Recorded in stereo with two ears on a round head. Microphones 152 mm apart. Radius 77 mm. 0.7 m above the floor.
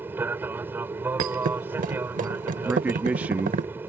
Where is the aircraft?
10° right (ahead or behind).